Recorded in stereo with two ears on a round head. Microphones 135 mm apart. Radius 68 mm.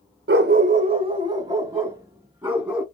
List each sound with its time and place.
0.3 s a dog barking: 75° right (ahead or behind), 0.6 m; by 2.8 s 10° right (ahead or behind), 2 m